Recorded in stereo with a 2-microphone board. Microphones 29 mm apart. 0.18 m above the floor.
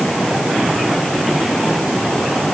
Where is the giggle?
No giggle in this recording.